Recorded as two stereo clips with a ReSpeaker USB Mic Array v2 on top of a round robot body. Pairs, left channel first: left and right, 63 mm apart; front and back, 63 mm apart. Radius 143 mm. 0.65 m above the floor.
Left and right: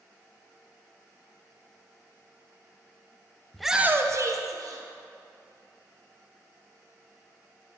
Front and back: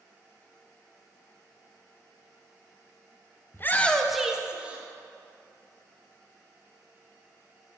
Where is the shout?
15° left, 0.6 m; by 4.8 s 110° right, 1.3 m.